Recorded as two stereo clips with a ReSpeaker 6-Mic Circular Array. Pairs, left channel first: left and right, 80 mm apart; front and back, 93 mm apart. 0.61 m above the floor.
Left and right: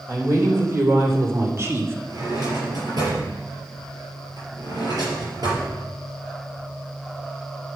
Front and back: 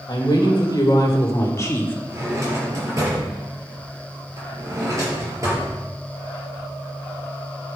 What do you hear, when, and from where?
0.1 s a woman speaking: 40° right, 3 m; by 2.0 s 55° right, 1.4 m
2.1 s a drawer: 125° right, 4.5 m